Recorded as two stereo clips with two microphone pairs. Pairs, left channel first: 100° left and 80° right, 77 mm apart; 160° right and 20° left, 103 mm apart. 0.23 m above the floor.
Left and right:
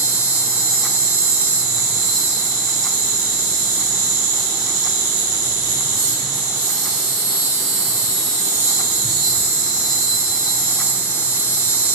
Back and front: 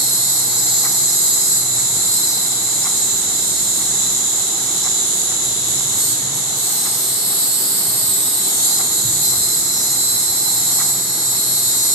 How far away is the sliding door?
I don't hear a sliding door.